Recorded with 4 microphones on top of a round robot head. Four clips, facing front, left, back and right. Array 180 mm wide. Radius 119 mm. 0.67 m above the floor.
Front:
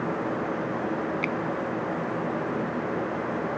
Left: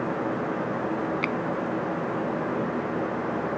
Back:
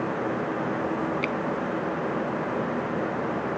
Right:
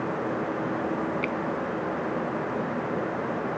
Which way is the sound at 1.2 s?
95° left.